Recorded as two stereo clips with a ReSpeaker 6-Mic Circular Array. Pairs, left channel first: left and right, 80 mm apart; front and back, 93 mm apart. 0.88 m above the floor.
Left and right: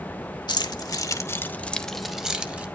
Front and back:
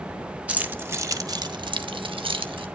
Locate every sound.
0.5 s keys jangling: 105° left, 0.8 m; by 2.7 s 160° right, 0.9 m